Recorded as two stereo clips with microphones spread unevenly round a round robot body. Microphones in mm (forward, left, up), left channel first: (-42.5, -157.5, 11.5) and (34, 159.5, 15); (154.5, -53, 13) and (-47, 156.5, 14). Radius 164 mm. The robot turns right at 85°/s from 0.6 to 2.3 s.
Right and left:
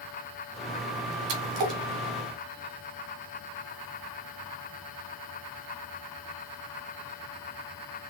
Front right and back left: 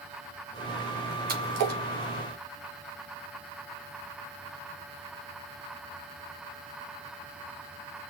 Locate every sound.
1.3 s a splash: 75° left, 2.5 m; by 1.8 s 115° left, 2.5 m